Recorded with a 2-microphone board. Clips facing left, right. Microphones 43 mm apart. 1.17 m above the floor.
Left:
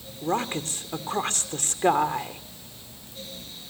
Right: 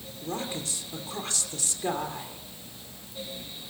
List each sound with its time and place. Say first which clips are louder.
0.2 s a woman speaking: left 7 dB; 50° left (ahead or behind), 3 m